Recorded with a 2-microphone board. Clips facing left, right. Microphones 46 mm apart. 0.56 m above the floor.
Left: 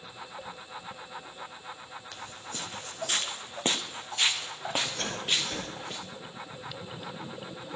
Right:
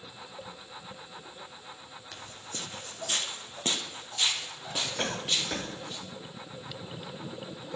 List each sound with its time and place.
2.1 s footsteps: centre (ahead or behind), 1.2 m; by 6.0 s 55° left (ahead or behind), 3 m
5.0 s a cough: 25° right (ahead or behind), 5 m